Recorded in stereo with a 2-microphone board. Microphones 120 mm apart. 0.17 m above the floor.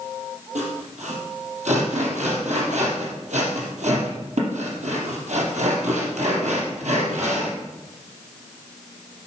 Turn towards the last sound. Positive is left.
turn(degrees=-75)  # may be behind; listen again after turning